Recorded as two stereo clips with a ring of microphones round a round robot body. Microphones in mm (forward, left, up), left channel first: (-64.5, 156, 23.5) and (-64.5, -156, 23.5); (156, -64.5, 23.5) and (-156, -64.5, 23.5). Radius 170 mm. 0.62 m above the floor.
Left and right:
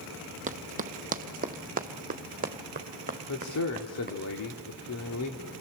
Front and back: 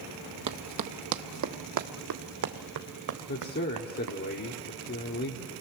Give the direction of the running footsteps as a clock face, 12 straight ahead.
5 o'clock.